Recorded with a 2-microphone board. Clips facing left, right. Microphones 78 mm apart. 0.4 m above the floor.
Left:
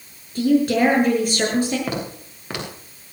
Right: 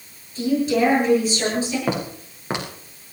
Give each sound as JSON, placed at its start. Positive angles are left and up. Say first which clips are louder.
{"t": 0.3, "sound": "a woman speaking", "louder": "left 3 dB", "side_deg": 55, "distance_m": 8.5}
{"t": 1.9, "sound": "footsteps", "louder": "right 2 dB", "side_deg": -25, "distance_m": 5.0}